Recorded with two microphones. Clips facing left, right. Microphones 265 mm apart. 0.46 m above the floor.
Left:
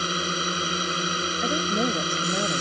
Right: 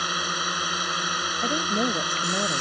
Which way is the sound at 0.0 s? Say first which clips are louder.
Left 5 dB; 30° left (ahead or behind).